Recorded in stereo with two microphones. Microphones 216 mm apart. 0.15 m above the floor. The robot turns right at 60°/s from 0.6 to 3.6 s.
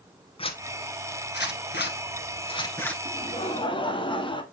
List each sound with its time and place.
0.4 s a zipper: 30° left (ahead or behind), 1.0 m; by 3.0 s 5° left (ahead or behind), 1.0 m
3.0 s laughter: 95° left, 1.2 m; by 4.4 s 130° left, 1.2 m